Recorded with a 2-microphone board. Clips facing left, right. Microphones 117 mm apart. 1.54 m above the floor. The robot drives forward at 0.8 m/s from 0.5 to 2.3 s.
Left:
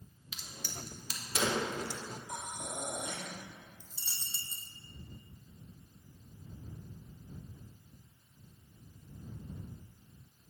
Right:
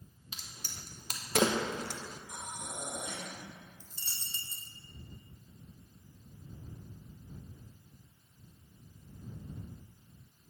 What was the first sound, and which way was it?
A crack, 40° right (ahead or behind).